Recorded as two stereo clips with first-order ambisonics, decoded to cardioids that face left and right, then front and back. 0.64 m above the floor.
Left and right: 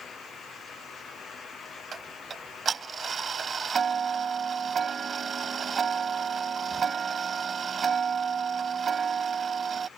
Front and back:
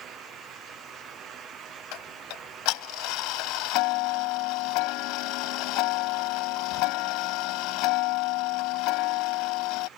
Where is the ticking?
20° right.